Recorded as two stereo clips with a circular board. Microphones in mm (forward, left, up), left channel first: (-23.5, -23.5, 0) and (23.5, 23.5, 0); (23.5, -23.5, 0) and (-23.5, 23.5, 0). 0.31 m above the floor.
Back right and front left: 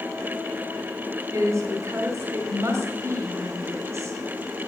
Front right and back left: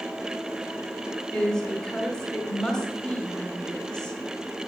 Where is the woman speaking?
30° left, 1.3 m.